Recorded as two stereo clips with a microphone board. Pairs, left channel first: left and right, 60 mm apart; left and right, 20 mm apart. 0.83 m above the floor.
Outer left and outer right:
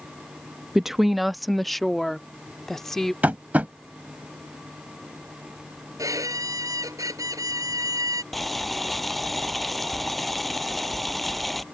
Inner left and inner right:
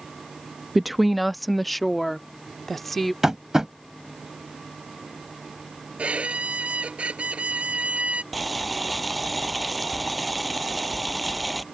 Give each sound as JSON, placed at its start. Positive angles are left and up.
{"t": 0.8, "sound": "a woman speaking", "side_deg": -5}
{"t": 3.2, "sound": "tapping", "side_deg": -30}
{"t": 6.0, "sound": "a violin", "side_deg": -80}
{"t": 8.3, "sound": "boiling", "side_deg": 0}